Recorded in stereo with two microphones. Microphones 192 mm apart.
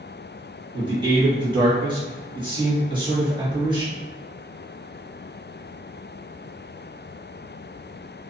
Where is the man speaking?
25° right (ahead or behind), 1.3 m.